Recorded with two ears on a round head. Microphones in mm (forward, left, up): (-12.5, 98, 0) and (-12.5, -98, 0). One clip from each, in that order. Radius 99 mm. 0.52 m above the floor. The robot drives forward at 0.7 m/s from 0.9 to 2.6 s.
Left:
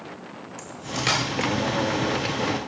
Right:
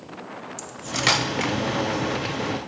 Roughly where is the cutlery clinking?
Right.